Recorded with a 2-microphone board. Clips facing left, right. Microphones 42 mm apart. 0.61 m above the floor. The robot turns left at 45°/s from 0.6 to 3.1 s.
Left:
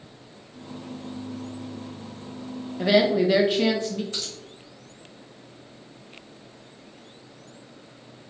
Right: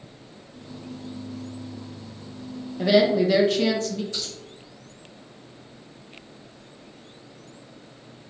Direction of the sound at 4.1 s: 40° left (ahead or behind).